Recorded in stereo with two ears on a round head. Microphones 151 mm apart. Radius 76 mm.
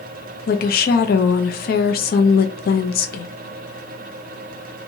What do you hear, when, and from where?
0.5 s a woman speaking: 60° left (ahead or behind), 0.8 m